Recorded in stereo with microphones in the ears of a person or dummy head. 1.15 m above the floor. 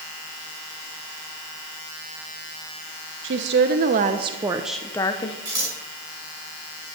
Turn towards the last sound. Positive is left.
turn(degrees=-20)  # may be behind; listen again after turning